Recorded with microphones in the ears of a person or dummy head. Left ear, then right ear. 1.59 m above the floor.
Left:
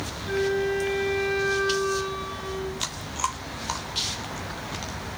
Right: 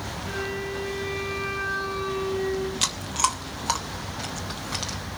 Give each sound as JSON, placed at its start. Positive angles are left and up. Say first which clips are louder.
{"t": 0.2, "sound": "a flute", "louder": "left 7 dB", "side_deg": 70, "distance_m": 9.0}
{"t": 2.8, "sound": "chewing", "louder": "right 6 dB", "side_deg": -10, "distance_m": 1.1}